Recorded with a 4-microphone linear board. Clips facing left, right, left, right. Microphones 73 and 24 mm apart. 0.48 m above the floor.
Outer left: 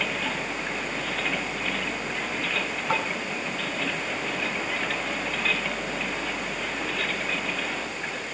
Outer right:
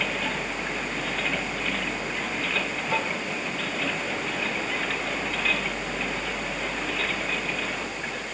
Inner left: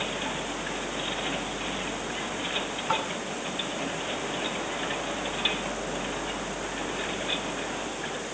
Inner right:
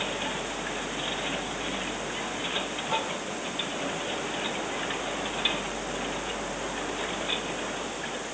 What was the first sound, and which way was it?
Tapping, 65° left (ahead or behind).